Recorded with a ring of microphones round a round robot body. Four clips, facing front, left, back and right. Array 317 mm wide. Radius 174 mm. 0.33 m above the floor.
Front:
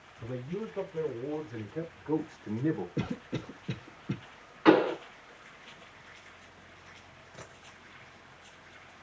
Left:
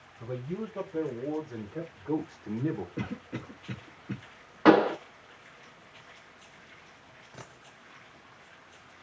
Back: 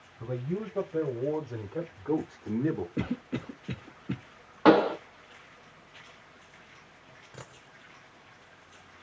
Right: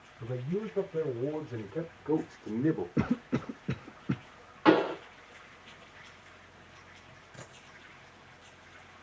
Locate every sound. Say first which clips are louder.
0.2 s a man speaking: right 1 dB, back 3 dB; 170° left, 2 m; by 2.9 s 135° right, 1.2 m
3.0 s a cough: right 7 dB, back 2 dB; 100° right, 0.9 m
4.7 s a pop: left 4 dB, back 2 dB; 145° left, 1.6 m
7.3 s a dropped coin: left 2 dB, back 1 dB; 145° left, 2.5 m